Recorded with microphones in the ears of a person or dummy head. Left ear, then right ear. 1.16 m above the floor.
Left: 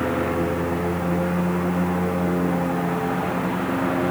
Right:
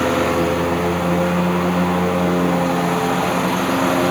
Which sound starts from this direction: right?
A lawn mower, at 0.0 s.